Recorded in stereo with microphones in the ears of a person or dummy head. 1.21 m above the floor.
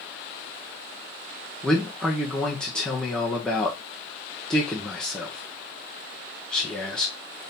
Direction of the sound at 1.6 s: Centre (ahead or behind).